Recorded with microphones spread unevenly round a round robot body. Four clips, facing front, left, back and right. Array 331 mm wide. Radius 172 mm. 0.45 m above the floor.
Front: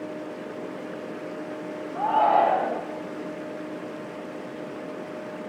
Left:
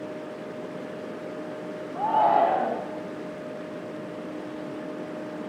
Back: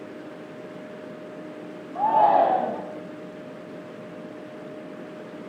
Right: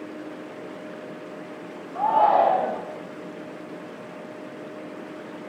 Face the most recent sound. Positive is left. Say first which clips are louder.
# right 2 dB, back 2 dB
turn(degrees=175)